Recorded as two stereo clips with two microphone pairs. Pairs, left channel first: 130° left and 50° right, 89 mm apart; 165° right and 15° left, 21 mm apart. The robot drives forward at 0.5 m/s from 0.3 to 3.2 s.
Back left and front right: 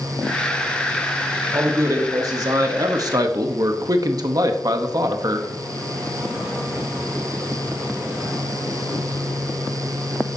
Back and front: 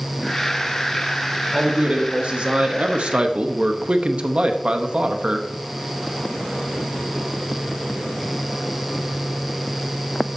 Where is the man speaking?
5° right, 1.7 m; by 5.5 s 10° right, 0.9 m.